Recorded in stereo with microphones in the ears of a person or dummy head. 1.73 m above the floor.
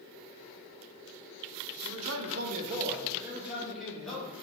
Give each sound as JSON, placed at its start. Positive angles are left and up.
{"t": 1.8, "sound": "a man speaking", "side_deg": -70, "distance_m": 1.0}